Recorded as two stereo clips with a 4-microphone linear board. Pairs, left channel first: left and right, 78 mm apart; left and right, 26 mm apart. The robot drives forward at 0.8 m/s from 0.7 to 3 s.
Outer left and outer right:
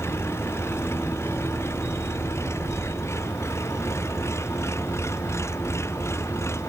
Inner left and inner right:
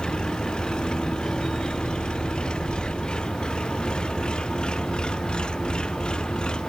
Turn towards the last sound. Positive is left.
turn(degrees=35)  # may be behind; listen again after turning